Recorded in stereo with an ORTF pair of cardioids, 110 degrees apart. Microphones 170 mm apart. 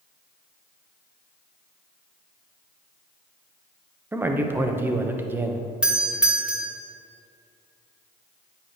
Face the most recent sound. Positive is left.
turn(degrees=-5)